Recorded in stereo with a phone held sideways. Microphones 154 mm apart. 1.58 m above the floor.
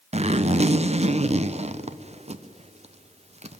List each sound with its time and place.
0.1 s a zipper: 45° right (ahead or behind), 0.8 m